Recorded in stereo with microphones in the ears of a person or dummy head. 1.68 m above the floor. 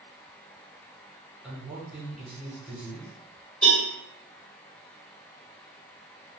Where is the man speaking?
5° right (ahead or behind), 1.1 m.